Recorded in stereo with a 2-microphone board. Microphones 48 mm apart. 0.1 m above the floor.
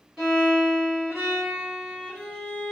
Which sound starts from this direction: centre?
A violin, at 0.2 s.